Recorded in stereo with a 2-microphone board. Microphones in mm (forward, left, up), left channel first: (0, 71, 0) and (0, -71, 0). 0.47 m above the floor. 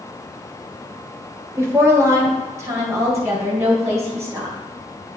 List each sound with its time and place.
1.6 s a woman speaking: 20° right (ahead or behind), 1.5 m